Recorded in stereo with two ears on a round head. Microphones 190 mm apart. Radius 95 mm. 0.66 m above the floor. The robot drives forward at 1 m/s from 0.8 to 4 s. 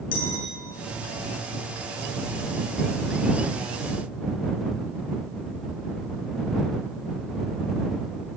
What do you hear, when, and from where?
0.1 s a clink: 40° left (ahead or behind), 6.5 m